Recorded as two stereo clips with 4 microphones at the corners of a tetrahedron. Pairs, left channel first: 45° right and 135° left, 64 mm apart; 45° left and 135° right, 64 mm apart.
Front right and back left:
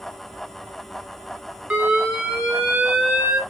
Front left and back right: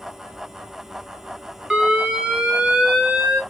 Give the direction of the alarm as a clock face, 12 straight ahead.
6 o'clock.